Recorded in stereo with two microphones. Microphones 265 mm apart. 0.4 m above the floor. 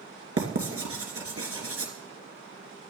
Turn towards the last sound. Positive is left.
turn(degrees=-60)  # may be behind; listen again after turning